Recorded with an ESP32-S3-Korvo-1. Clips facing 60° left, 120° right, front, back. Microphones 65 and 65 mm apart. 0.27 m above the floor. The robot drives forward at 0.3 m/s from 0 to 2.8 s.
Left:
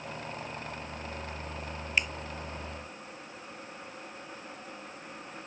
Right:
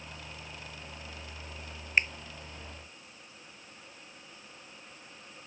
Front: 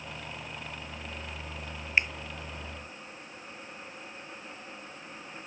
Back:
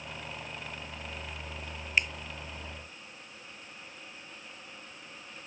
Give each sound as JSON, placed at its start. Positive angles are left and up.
{"t": 2.0, "sound": "a finger snap", "azimuth_deg": -65}